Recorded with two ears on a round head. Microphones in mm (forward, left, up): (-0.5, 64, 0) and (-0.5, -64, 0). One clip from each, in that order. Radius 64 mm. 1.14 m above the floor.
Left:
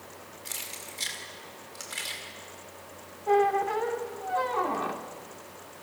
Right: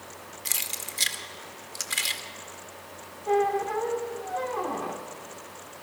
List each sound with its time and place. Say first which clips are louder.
0.5 s keys jangling: right 7 dB; 45° right (ahead or behind), 2.0 m
3.3 s a squeak: left 1 dB; 30° left (ahead or behind), 1.4 m